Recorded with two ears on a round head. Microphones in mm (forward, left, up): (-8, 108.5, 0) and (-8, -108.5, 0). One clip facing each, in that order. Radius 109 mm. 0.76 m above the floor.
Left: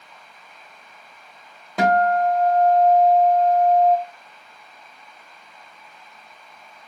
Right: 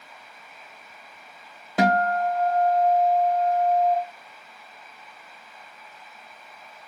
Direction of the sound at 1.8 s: Centre (ahead or behind).